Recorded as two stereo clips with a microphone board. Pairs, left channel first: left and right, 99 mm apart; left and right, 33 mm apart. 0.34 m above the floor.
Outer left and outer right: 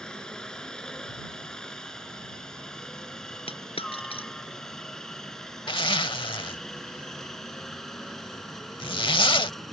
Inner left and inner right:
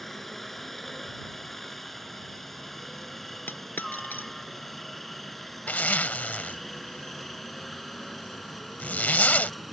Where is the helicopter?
5° left (ahead or behind); by 9.7 s centre (ahead or behind).